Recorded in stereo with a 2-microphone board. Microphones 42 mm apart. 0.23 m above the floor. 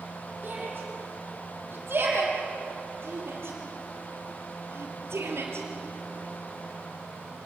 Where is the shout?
50° right (ahead or behind), 9 m; by 5.7 s 75° right (ahead or behind), 5 m.